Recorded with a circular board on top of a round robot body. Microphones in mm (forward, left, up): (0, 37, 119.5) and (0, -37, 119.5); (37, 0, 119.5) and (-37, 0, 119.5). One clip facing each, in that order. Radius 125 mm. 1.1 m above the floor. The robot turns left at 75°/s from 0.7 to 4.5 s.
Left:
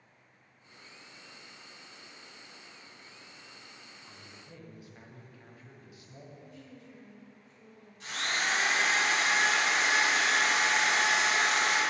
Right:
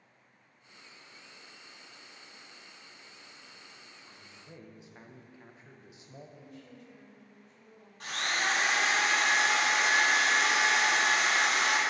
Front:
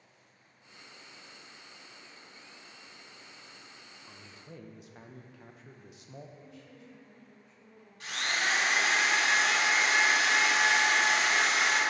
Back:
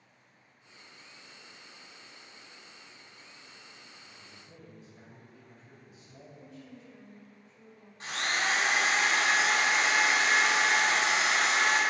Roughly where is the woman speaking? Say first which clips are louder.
Even, back 2 dB; behind right.